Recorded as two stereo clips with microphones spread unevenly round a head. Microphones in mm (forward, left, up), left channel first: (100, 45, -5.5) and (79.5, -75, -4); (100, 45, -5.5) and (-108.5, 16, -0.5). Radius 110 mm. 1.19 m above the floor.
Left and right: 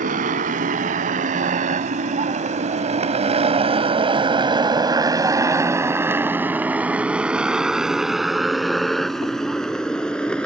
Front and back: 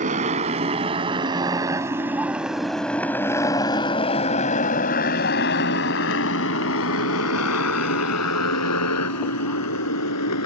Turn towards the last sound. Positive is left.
turn(degrees=0)